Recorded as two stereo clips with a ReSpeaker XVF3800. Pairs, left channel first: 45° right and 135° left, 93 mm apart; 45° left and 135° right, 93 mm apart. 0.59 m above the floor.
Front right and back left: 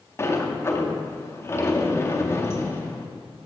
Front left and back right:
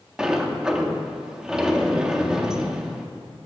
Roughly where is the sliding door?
Ahead right.